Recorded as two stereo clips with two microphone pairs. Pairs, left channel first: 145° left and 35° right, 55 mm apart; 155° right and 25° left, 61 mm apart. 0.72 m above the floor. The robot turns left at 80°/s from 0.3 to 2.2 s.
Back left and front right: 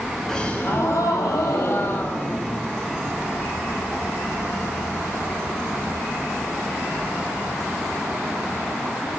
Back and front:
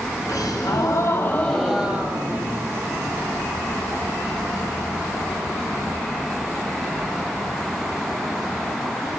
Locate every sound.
0.3 s a gasp: 135° right, 5 m; by 2.9 s 70° left, 5 m